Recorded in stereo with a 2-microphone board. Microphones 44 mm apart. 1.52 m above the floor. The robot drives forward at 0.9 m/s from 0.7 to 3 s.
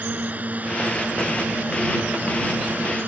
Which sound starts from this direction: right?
A drone, at 0.0 s.